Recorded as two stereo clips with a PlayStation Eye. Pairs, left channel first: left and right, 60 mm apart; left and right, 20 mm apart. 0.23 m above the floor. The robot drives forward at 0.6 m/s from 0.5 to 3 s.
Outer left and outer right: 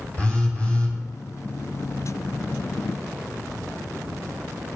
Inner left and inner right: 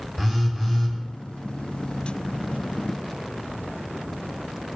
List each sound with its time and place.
0.2 s a phone buzzing: 20° left (ahead or behind), 1.8 m